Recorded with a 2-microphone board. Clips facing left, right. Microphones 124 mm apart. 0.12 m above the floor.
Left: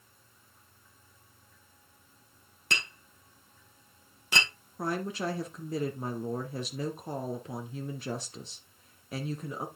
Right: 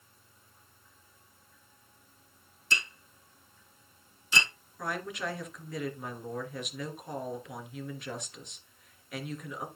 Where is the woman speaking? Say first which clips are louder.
Left 3 dB; 35° left (ahead or behind), 1.9 m.